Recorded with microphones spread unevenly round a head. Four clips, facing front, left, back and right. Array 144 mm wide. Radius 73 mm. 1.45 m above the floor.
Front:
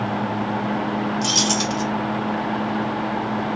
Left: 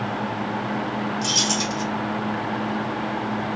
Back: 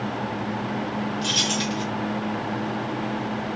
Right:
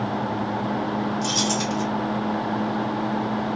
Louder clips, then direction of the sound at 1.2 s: Right 1 dB, front 4 dB; 50° right.